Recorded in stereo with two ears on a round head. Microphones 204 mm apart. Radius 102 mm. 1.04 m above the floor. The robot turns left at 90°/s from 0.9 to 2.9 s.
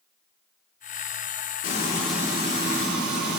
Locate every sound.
1.6 s frying: 40° left, 3.5 m; by 3.4 s 70° right, 3.5 m